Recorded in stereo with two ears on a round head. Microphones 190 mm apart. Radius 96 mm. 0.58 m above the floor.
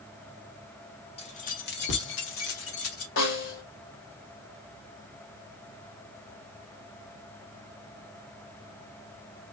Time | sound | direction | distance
1.2 | keys jangling | 30° left (ahead or behind) | 1.2 m
3.2 | a snare drum | 65° left (ahead or behind) | 1.8 m